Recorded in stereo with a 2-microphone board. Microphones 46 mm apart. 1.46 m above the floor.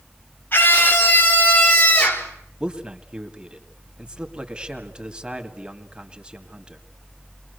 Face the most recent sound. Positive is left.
turn(degrees=-20)  # may be behind; listen again after turning